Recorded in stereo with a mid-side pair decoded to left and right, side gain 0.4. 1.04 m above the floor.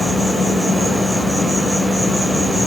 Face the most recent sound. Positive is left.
turn(degrees=-5)